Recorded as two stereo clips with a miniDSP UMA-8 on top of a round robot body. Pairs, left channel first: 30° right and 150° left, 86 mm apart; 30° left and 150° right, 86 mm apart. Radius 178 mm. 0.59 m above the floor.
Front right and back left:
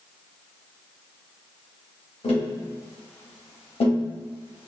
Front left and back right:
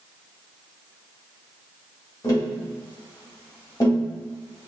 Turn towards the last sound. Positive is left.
turn(degrees=-25)